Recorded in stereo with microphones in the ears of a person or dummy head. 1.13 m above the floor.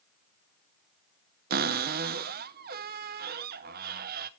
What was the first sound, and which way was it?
A cupboard door, 40° right (ahead or behind).